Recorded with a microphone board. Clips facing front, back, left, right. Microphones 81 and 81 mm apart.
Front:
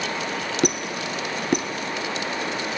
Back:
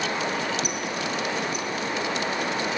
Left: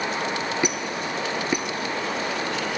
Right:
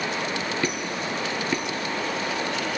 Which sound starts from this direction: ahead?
A squeak, at 0.6 s.